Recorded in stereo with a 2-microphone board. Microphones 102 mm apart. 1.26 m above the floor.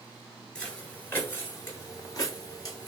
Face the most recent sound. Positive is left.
turn(degrees=40)  # may be behind; listen again after turning